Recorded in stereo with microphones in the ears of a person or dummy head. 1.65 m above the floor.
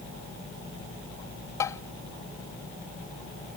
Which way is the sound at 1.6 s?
20° left (ahead or behind).